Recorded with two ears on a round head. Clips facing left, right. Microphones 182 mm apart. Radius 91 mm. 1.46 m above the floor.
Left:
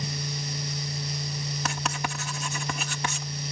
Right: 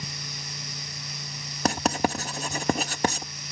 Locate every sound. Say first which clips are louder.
1.6 s writing: right 11 dB; 35° right (ahead or behind)